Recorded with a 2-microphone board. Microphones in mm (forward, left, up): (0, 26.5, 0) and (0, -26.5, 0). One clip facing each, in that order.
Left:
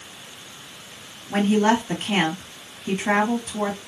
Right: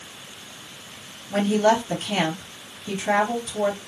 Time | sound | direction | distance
1.3 | a woman speaking | 40° left (ahead or behind) | 2.5 m